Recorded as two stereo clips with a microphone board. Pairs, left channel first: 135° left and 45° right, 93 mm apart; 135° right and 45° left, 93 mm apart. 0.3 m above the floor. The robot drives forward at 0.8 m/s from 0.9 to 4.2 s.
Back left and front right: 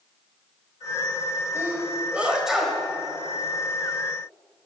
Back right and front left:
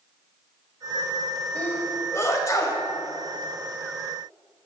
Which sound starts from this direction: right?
A sneeze, at 1.6 s.